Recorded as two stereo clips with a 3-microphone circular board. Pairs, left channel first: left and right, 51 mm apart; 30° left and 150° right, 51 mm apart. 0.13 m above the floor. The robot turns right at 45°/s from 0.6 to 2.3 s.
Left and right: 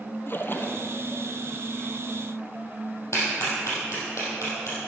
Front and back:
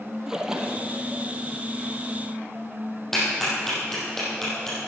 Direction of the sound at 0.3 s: 135° left.